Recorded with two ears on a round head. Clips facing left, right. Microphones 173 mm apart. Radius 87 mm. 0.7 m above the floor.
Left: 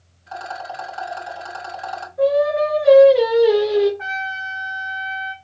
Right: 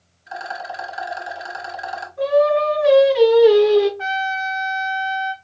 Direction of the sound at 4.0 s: 45° right (ahead or behind).